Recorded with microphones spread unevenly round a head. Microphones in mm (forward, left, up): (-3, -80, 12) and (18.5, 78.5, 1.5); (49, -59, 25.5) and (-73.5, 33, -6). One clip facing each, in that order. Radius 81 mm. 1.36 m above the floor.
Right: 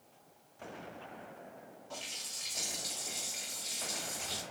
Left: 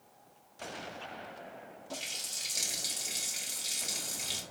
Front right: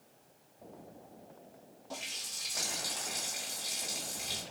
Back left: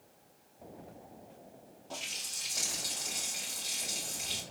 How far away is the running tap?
About 1.0 m.